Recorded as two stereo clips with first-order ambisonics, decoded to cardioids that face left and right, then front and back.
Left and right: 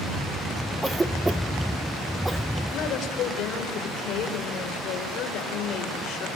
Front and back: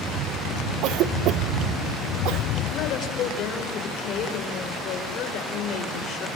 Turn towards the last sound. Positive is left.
turn(degrees=45)